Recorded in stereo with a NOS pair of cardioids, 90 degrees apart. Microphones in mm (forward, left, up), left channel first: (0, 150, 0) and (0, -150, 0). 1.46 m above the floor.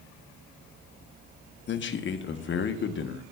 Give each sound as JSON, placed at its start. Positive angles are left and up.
{"t": 1.7, "sound": "a man speaking", "azimuth_deg": 40, "distance_m": 1.0}